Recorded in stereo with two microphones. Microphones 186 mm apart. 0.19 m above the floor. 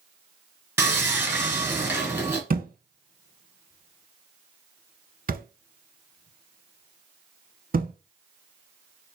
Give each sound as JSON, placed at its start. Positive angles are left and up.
{"t": 0.8, "sound": "sawing", "side_deg": -15, "distance_m": 1.2}
{"t": 2.5, "sound": "a thud", "side_deg": -50, "distance_m": 0.6}